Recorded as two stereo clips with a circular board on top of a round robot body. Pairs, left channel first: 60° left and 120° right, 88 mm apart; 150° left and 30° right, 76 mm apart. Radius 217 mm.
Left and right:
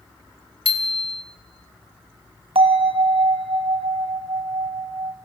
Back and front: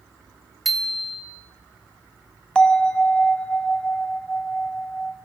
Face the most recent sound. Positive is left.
turn(degrees=-130)